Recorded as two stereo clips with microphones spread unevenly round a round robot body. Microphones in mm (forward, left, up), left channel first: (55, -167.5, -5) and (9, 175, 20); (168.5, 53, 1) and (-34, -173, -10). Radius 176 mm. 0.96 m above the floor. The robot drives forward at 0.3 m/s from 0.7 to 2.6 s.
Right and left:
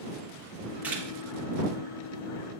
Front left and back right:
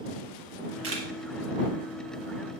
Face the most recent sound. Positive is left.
turn(degrees=-175)